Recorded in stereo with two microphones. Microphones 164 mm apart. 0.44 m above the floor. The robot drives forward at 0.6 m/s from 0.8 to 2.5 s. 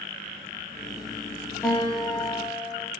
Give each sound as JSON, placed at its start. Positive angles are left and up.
{"t": 1.6, "sound": "a guitar", "side_deg": 10, "distance_m": 8.5}